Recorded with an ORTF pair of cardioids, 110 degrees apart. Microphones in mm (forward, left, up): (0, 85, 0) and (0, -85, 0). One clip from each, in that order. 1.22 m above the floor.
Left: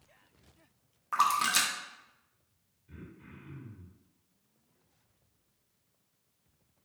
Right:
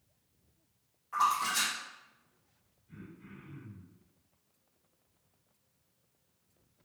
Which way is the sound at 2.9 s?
45° left.